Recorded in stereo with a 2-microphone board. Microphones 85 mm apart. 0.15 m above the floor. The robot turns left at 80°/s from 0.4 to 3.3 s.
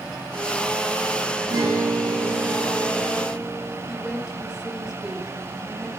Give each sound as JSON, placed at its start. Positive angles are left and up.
{"t": 1.5, "sound": "a guitar", "azimuth_deg": -65, "distance_m": 6.5}
{"t": 3.9, "sound": "a woman speaking", "side_deg": -10, "distance_m": 1.5}